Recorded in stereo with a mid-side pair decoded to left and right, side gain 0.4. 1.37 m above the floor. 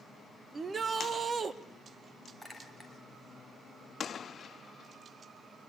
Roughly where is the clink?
Ahead.